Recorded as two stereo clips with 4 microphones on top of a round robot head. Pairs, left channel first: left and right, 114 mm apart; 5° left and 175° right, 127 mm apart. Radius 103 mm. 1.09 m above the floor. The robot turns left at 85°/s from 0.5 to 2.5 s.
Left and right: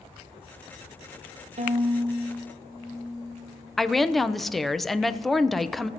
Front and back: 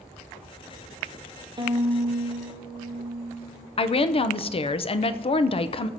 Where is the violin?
115° right, 0.8 m; by 3.7 s 170° left, 0.8 m.